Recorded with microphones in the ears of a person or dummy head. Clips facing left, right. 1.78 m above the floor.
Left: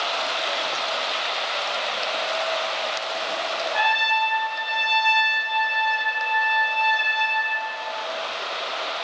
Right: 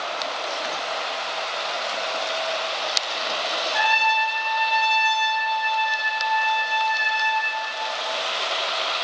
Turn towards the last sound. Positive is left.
turn(degrees=10)  # may be behind; listen again after turning